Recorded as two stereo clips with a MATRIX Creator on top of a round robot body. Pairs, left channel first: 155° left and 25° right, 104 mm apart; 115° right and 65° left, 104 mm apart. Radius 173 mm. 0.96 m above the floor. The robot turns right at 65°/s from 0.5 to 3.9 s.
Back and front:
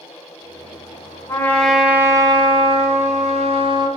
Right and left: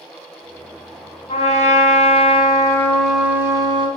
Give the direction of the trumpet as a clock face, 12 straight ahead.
5 o'clock.